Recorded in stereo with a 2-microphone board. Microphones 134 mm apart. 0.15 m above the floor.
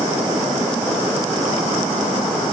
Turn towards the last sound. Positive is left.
No sound to turn to.